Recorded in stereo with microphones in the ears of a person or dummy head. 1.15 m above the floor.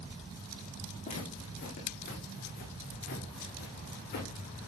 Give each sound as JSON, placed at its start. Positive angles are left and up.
{"t": 1.0, "sound": "footsteps", "side_deg": 40, "distance_m": 4.5}